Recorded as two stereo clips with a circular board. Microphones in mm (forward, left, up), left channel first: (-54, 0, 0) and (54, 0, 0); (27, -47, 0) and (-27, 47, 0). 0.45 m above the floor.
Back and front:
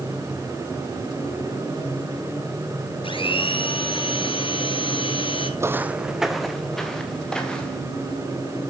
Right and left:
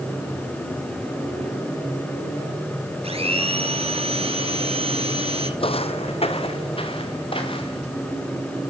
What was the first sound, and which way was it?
A blender, 145° left.